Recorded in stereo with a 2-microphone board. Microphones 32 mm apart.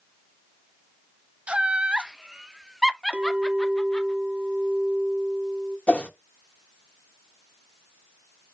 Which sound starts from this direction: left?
A whoosh, at 5.9 s.